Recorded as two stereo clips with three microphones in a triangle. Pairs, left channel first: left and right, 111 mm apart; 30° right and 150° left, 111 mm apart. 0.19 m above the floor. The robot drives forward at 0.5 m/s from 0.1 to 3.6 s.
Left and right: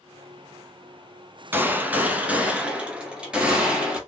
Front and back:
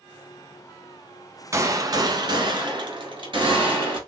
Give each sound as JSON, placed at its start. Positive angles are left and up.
{"t": 1.5, "sound": "a gunshot", "azimuth_deg": -155, "distance_m": 0.7}